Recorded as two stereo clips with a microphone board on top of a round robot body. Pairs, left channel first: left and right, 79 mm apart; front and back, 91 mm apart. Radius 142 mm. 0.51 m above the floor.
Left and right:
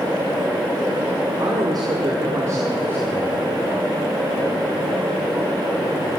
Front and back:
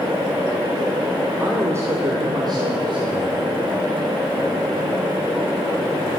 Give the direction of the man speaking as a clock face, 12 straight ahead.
4 o'clock.